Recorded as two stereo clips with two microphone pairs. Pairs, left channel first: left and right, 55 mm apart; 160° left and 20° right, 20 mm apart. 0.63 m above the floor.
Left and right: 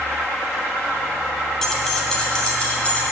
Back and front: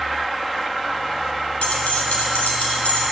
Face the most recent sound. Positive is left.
turn(degrees=155)